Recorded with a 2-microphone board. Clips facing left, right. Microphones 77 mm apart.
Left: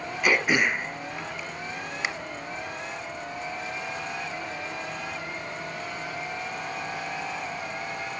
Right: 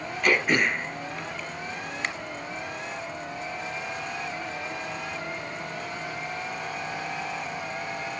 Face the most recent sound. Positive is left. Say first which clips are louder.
# even
turn(degrees=5)  # may be behind; listen again after turning